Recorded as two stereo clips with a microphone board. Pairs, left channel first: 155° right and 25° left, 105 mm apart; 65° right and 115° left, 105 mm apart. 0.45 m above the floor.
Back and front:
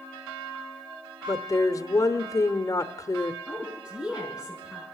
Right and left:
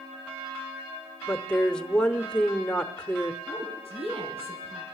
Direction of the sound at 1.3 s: 145° right.